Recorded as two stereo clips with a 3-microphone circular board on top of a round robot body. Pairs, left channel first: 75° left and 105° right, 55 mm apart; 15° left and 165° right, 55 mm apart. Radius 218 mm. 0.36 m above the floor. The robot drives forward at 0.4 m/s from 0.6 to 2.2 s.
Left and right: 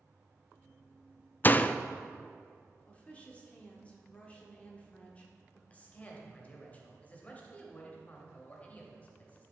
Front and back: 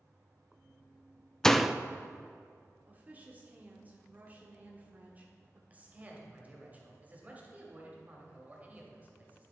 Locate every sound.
1.4 s a door slam: 90° left, 0.5 m; by 1.8 s 120° left, 0.5 m
2.9 s a woman speaking: 135° left, 1.7 m
5.7 s a man speaking: 135° left, 1.8 m